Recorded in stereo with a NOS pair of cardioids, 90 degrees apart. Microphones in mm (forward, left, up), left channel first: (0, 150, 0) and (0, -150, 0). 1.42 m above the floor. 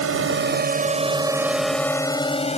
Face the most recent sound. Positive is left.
turn(degrees=20)